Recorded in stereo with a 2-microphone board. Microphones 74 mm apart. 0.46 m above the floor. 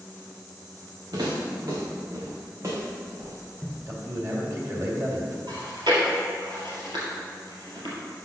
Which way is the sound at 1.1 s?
60° right (ahead or behind).